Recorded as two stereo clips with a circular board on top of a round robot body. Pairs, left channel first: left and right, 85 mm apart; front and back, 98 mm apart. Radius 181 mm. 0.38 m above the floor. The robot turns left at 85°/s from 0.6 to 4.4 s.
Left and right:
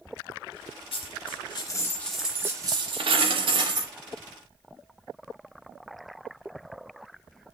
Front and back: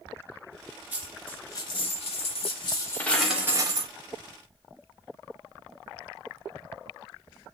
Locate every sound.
0.9 s a dropped coin: 110° left, 0.8 m; by 3.9 s 145° right, 0.8 m